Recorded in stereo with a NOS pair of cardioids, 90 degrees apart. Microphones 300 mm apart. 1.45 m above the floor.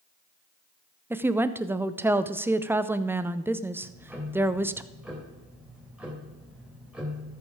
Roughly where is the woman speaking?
Ahead.